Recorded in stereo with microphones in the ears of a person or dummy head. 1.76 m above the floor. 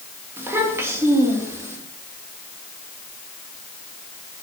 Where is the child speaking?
15° right (ahead or behind), 2 m.